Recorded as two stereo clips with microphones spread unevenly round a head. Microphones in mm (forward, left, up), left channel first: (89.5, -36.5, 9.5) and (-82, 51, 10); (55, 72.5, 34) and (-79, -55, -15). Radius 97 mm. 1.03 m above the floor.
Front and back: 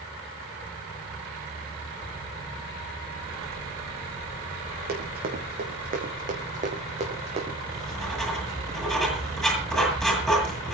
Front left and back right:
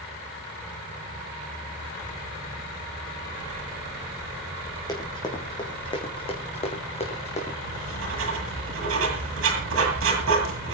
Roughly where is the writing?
Behind right.